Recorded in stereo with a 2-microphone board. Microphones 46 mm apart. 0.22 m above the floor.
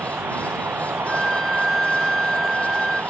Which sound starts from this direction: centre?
A violin, at 1.1 s.